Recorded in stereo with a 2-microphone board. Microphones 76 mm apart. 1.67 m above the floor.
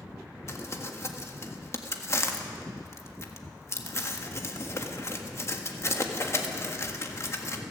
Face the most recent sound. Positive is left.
turn(degrees=40)  # may be behind; listen again after turning